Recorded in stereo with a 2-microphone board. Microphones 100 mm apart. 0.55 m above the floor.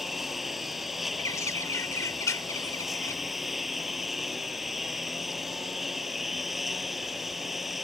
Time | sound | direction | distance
0.0 | a lawn mower | centre (ahead or behind) | ?
1.2 | a bird | 35° left (ahead or behind) | ?